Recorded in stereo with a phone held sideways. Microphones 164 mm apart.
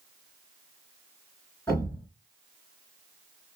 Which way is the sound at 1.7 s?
20° left (ahead or behind).